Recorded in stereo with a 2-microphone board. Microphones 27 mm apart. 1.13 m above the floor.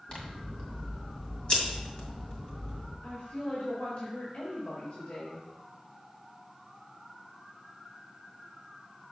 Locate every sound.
0.1 s scissors: 40° left (ahead or behind), 1.9 m
3.0 s a woman speaking: 55° left (ahead or behind), 1.8 m